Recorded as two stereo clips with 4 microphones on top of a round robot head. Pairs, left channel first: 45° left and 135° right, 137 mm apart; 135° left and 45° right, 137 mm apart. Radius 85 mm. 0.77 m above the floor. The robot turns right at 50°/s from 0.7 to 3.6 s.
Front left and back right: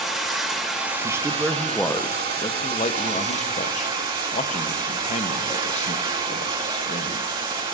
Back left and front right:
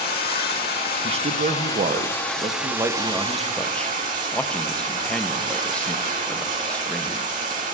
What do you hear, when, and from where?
0.0 s running water: 135° left, 3 m; by 7.7 s 80° right, 3 m
1.0 s a man speaking: 75° right, 0.8 m; by 7.3 s 55° left, 0.8 m